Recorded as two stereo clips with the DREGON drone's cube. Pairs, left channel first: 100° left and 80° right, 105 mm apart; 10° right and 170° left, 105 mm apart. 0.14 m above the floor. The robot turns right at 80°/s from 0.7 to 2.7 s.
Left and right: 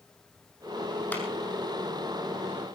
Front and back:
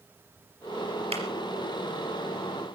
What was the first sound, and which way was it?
A clap, 175° left.